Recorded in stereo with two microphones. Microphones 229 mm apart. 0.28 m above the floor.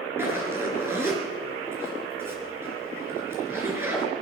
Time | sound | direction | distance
0.2 | a zipper | 10° right (ahead or behind) | 3.5 m